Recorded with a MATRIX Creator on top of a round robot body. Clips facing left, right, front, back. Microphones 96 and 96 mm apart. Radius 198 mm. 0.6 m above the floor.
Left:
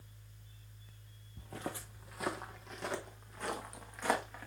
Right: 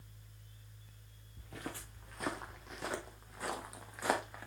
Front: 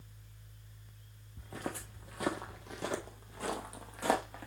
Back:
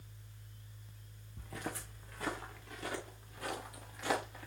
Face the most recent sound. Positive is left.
turn(degrees=-10)